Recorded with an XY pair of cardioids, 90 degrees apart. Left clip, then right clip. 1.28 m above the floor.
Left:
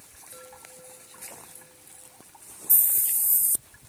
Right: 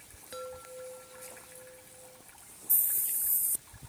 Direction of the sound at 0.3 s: 55° right.